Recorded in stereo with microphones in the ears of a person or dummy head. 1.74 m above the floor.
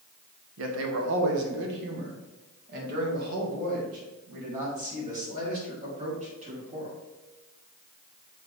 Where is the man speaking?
75° right (ahead or behind), 1.2 m; by 7.0 s 40° right (ahead or behind), 4 m.